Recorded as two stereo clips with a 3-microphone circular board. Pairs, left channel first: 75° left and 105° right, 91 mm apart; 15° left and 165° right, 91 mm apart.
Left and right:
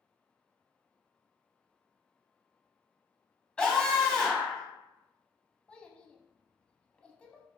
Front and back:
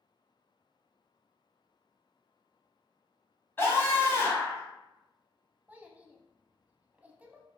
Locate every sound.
3.6 s a scream: 10° left, 1.4 m
5.7 s a child speaking: 140° left, 0.6 m